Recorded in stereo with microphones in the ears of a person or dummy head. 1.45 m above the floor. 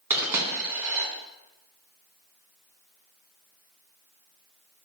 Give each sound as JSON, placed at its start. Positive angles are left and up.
{"t": 0.1, "sound": "a dropped coin", "side_deg": -15, "distance_m": 3.0}